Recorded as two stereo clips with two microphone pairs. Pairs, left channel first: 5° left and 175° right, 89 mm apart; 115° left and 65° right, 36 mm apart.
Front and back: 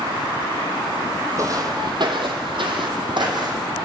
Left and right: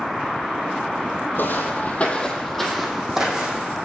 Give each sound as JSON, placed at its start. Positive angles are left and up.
{"t": 1.4, "sound": "footsteps", "azimuth_deg": 135, "distance_m": 1.2}